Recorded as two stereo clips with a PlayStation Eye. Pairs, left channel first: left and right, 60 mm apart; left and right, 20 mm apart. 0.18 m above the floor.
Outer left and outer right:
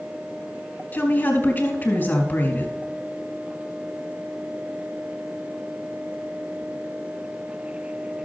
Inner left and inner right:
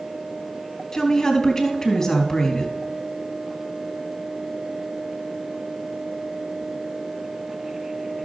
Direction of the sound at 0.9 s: 30° left (ahead or behind).